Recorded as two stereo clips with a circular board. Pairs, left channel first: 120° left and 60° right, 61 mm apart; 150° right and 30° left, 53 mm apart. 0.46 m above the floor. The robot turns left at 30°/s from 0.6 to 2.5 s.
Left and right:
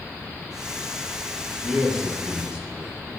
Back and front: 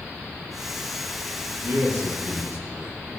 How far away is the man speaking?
About 3.5 m.